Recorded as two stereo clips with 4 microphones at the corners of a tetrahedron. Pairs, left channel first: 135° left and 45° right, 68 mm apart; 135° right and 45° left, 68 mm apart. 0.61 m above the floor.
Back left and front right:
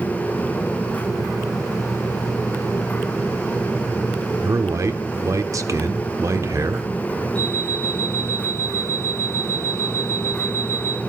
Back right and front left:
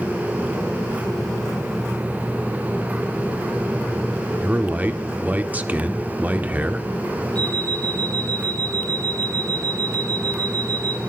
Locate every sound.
4.4 s a man speaking: 15° right, 1.2 m
7.3 s an alarm clock: 65° left, 10 m